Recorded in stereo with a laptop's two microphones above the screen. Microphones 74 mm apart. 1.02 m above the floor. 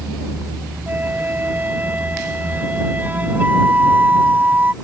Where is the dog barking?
No dog barking in this recording.